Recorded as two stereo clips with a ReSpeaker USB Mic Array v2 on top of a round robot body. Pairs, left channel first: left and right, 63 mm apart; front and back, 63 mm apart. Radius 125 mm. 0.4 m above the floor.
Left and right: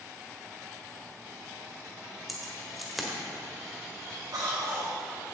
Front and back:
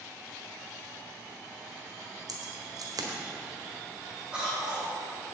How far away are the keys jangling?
About 1.6 m.